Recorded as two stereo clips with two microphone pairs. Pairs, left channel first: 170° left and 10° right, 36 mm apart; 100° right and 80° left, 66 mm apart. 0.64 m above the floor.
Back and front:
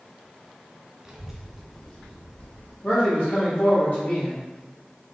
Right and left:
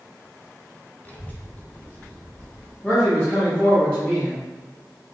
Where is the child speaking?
60° right, 0.8 m; by 2.7 s 165° right, 1.0 m.